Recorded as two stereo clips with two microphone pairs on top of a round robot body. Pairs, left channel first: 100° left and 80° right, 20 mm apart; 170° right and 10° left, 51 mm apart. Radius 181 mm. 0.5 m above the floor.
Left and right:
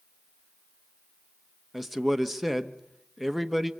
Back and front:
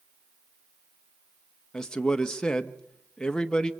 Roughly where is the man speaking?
Behind.